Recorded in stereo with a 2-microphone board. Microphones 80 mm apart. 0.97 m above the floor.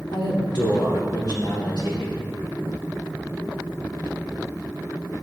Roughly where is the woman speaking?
Left.